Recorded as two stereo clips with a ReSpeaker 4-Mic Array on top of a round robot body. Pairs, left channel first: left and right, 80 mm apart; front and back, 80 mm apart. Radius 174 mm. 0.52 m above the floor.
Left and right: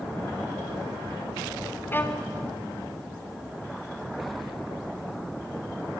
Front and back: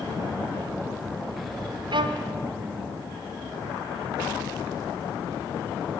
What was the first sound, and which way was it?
A violin, 155° left.